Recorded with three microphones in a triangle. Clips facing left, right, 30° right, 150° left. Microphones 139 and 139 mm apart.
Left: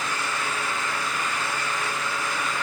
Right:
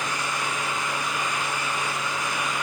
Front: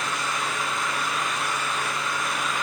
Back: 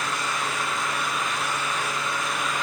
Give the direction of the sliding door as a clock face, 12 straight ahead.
No sliding door in this recording.